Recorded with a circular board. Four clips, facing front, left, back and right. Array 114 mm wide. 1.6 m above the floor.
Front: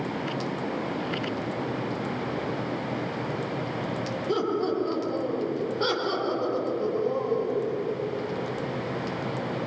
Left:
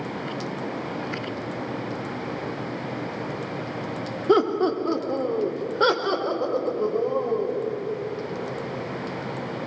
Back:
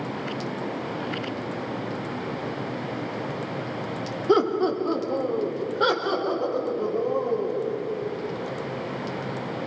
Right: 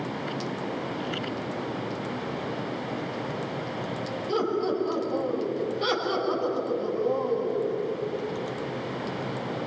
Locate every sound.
4.3 s laughter: 125° left, 3 m; by 7.7 s 105° left, 7 m